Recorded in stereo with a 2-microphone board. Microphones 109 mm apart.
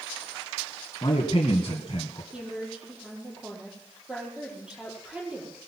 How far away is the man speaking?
About 1.7 m.